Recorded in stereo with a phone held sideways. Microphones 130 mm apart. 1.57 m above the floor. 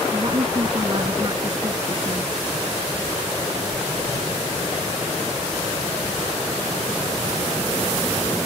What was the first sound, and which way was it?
A woman speaking, 35° right (ahead or behind).